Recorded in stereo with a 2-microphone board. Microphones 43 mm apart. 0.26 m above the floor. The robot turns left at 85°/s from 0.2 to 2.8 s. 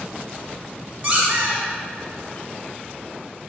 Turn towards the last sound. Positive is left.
turn(degrees=-175)